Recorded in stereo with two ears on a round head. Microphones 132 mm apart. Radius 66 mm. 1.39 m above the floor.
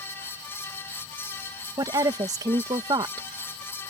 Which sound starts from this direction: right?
A woman speaking, at 1.8 s.